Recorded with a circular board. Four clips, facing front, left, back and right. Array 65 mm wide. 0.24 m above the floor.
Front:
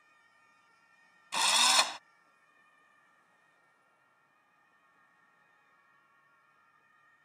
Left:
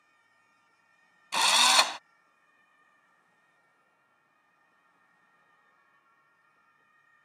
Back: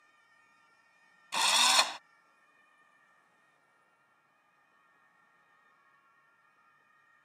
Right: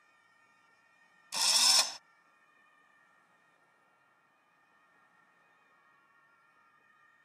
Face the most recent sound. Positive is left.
turn(degrees=90)